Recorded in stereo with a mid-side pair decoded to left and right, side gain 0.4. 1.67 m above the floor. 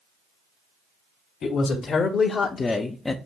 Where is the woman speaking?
65° left, 1.3 m; by 3.1 s 15° left, 0.5 m.